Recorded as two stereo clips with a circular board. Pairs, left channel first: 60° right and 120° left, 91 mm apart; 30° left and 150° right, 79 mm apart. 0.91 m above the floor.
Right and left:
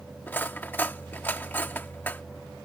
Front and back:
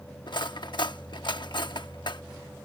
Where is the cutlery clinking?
10° left.